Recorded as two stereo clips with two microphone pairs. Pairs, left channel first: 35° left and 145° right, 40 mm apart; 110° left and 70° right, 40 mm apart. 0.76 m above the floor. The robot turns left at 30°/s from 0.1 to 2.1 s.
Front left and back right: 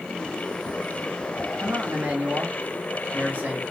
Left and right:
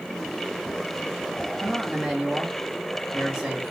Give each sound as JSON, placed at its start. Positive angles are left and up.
{"t": 1.6, "sound": "a man speaking", "azimuth_deg": -130, "distance_m": 1.3}